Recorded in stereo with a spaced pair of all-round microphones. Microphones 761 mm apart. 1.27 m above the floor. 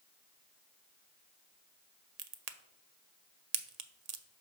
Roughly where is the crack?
Right.